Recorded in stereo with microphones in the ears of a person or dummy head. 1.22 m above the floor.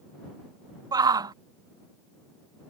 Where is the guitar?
I don't hear a guitar.